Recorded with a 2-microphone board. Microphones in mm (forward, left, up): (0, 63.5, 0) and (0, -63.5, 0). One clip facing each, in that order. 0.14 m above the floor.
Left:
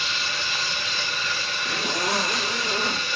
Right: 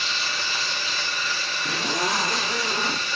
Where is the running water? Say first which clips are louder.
Even; 35° right (ahead or behind), 6 m.